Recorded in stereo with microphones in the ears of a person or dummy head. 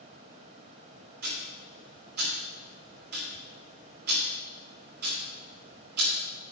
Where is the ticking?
50° right (ahead or behind), 2.5 m.